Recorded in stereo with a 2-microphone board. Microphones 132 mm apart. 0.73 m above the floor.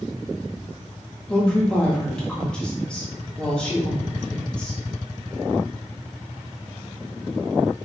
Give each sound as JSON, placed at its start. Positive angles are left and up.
{"t": 1.3, "sound": "a woman speaking", "side_deg": 10, "distance_m": 1.0}